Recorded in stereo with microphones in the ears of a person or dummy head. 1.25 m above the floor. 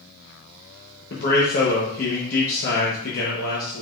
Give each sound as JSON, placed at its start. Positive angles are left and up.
{"t": 1.1, "sound": "a man speaking", "side_deg": 50, "distance_m": 1.0}